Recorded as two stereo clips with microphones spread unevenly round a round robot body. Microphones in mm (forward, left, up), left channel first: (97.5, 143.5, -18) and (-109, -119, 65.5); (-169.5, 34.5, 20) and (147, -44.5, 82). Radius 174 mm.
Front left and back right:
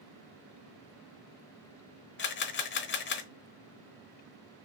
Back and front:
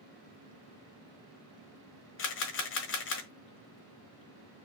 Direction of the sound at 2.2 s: 110° left.